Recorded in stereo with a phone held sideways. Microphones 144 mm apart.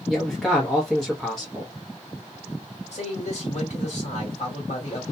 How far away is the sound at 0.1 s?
About 0.8 m.